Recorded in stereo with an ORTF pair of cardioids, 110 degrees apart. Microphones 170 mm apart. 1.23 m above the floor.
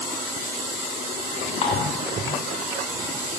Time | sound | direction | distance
1.6 | dishes clattering | 45° left | 6 m